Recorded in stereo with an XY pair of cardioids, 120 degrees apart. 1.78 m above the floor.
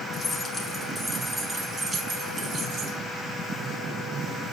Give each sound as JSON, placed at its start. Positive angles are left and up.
{"t": 0.1, "sound": "keys jangling", "azimuth_deg": 25, "distance_m": 2.5}